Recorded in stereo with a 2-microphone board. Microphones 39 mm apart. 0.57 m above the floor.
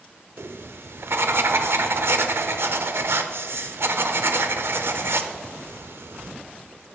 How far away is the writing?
About 0.6 m.